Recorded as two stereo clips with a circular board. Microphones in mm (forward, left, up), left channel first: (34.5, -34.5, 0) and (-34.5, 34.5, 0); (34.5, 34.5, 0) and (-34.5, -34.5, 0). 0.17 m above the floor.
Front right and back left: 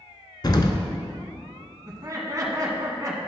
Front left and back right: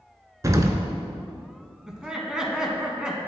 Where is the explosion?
85° right, 0.6 m.